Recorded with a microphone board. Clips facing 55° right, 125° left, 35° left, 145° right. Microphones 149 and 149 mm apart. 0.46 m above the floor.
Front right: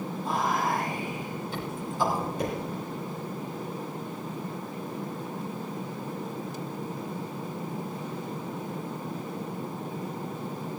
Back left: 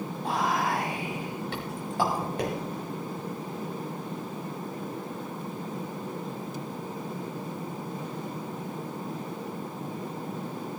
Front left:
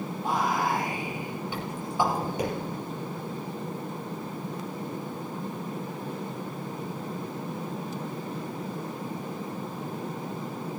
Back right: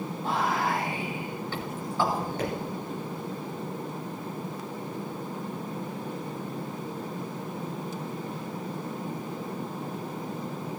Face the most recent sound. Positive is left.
turn(degrees=110)